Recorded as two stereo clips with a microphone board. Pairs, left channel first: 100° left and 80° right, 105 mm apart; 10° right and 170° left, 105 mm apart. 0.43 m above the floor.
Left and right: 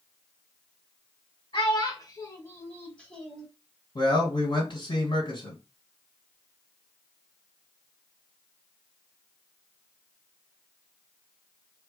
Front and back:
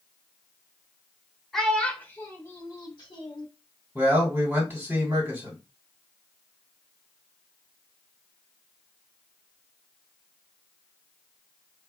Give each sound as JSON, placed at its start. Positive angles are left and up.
{"t": 1.5, "sound": "a child speaking", "azimuth_deg": 75, "distance_m": 1.1}
{"t": 4.0, "sound": "a man speaking", "azimuth_deg": 110, "distance_m": 2.0}